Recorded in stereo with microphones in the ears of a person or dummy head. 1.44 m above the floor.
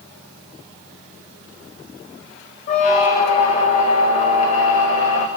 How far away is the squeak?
About 0.6 m.